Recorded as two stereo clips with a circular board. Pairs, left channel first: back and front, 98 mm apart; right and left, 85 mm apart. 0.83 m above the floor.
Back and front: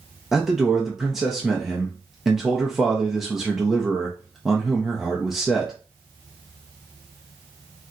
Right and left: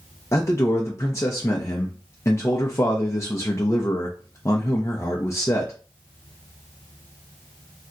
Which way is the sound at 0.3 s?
85° right.